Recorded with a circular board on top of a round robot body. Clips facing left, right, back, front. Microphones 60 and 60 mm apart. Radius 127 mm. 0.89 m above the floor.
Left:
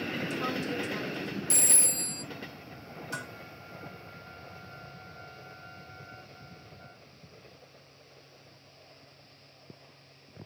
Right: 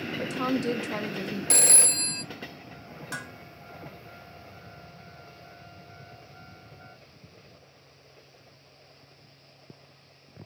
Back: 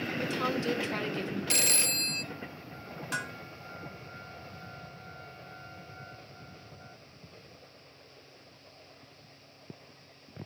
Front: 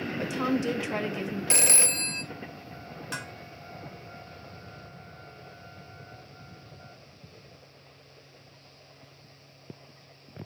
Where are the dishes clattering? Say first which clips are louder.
Right 1 dB, back 3 dB; 90° right, 2.5 m.